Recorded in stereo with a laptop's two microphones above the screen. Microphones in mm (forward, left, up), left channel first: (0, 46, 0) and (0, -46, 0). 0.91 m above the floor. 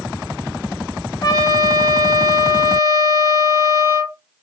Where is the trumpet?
45° left (ahead or behind), 0.9 m.